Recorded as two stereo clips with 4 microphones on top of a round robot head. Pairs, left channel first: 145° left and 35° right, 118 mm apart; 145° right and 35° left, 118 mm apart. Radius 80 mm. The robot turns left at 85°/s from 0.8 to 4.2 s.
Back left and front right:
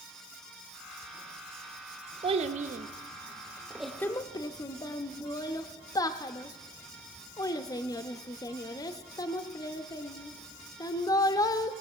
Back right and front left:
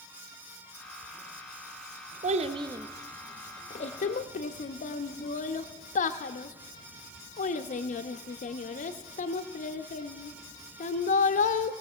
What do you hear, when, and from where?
2.2 s a child speaking: 15° left, 0.5 m; by 11.7 s 155° right, 0.5 m